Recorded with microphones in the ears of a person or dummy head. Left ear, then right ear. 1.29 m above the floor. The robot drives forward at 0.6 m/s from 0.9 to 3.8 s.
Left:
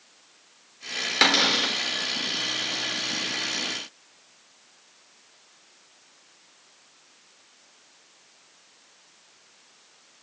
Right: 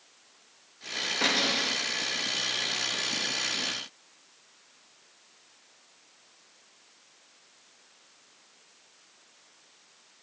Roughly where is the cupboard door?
Left.